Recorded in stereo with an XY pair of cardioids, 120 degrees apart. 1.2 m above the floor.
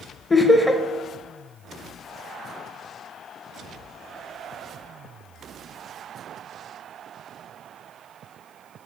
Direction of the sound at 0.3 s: 15° left.